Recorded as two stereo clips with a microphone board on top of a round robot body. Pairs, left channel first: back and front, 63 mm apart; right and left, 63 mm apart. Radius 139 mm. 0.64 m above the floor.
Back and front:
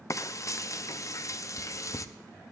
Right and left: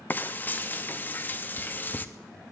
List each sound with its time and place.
0.1 s frying: 150° right, 0.6 m